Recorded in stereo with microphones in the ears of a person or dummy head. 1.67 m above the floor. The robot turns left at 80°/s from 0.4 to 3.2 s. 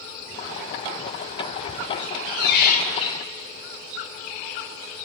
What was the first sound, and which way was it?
A squeak, 120° left.